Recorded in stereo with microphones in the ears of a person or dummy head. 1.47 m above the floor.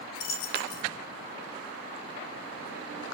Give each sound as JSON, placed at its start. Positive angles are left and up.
{"t": 0.1, "sound": "a dropped coin", "side_deg": 55, "distance_m": 3.5}